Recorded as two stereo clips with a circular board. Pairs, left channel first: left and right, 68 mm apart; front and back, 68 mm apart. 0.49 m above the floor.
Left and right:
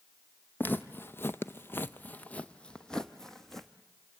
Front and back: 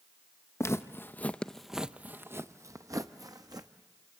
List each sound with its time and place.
0.6 s footsteps: 35° left, 0.8 m; by 3.7 s 175° left, 1.2 m